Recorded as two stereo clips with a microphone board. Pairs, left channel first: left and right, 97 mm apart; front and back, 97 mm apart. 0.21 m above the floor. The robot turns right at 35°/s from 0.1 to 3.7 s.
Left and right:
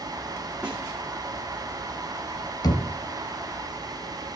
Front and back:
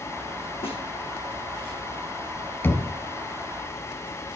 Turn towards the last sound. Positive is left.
turn(degrees=95)